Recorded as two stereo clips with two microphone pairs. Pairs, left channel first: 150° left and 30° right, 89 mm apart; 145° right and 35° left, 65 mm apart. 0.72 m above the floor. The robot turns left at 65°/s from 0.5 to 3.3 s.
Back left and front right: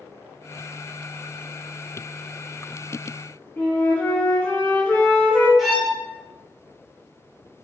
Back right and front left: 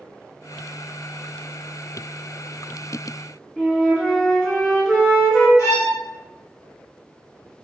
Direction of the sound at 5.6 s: 120° right.